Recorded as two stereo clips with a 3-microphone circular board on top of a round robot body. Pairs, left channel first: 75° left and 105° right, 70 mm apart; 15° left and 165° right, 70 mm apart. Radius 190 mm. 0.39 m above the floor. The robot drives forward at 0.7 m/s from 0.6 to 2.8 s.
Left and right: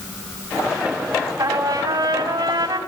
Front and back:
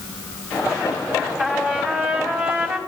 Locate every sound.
1.4 s a trumpet: 85° right, 3.5 m; by 2.8 s 100° right, 4 m